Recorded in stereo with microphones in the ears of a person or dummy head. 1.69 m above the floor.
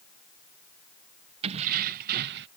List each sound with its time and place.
1.4 s keys jangling: 35° right (ahead or behind); by 2.5 s 60° right (ahead or behind)